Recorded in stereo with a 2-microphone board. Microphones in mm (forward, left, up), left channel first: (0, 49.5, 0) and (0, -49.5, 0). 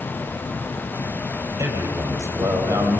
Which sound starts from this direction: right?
A man speaking, at 1.6 s.